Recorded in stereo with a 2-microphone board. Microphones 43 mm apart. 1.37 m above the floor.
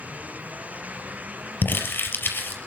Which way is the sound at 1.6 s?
55° left (ahead or behind).